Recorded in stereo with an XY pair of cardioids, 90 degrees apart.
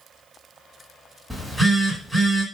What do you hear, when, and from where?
1.3 s a phone buzzing: straight ahead, 1.5 m